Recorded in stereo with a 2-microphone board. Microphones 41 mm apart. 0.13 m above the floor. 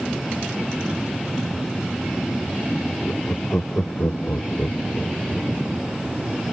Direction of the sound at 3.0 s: 50° left (ahead or behind).